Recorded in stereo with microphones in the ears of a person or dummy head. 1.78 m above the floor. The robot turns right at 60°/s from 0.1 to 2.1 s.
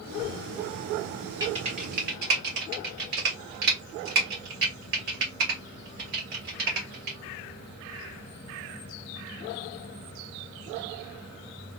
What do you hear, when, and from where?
1.4 s typing on a keyboard: 20° right (ahead or behind), 1.0 m; by 7.2 s 55° right (ahead or behind), 1.0 m